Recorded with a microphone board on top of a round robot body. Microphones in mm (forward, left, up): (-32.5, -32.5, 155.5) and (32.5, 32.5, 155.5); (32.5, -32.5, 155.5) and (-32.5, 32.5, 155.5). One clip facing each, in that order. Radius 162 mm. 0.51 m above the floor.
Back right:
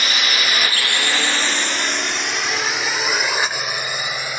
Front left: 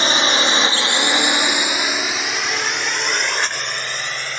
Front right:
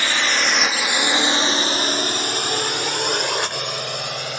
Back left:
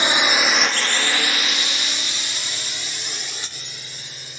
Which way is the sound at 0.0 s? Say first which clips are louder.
Front left 5 dB, back left 2 dB; 80° left.